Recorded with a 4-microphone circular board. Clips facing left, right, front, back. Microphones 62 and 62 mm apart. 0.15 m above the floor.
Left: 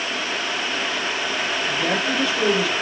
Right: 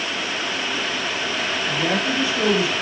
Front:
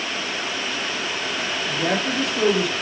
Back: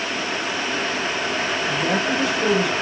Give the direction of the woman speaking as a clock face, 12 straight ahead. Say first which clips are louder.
Right 1 dB, even; 12 o'clock.